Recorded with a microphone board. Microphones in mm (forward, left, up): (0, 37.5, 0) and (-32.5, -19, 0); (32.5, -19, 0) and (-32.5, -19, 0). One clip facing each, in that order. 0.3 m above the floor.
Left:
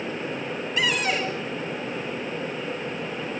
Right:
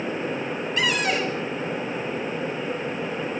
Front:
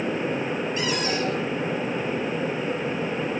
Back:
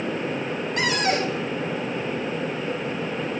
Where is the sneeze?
I don't hear a sneeze.